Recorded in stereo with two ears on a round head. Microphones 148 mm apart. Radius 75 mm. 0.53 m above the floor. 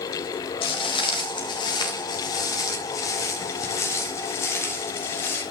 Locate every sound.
0.6 s footsteps: 35° left (ahead or behind), 5 m; by 5.4 s 15° left (ahead or behind), 9 m